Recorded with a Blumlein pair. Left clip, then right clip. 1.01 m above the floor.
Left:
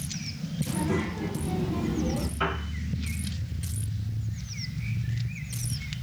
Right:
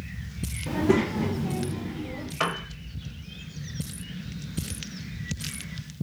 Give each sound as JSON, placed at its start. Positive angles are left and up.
{"t": 0.7, "sound": "a child speaking", "azimuth_deg": -60, "distance_m": 0.8}
{"t": 2.4, "sound": "a piano", "azimuth_deg": -65, "distance_m": 0.9}